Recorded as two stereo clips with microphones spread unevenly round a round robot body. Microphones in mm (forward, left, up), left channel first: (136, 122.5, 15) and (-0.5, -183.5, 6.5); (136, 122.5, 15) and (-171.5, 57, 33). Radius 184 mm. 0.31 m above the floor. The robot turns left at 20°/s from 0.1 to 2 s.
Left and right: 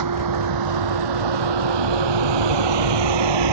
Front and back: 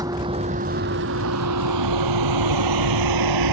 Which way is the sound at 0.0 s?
85° right.